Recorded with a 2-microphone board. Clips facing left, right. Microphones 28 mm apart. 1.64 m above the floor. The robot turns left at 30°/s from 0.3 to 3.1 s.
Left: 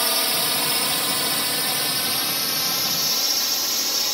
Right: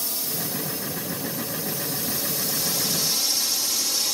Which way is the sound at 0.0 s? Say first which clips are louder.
Left 9 dB; 60° left (ahead or behind).